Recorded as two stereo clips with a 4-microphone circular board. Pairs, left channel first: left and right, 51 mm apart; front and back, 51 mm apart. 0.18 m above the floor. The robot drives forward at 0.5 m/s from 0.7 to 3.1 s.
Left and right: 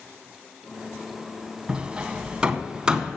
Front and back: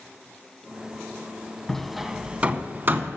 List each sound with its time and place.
1.7 s hammering: 65° right, 0.6 m; by 3.2 s 160° right, 0.8 m